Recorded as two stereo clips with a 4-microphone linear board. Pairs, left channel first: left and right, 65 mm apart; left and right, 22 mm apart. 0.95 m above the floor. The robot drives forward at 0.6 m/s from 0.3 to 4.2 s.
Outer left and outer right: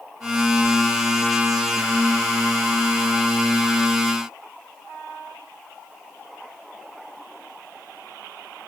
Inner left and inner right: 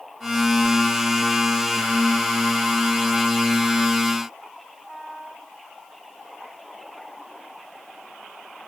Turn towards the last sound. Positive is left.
No sound to turn to.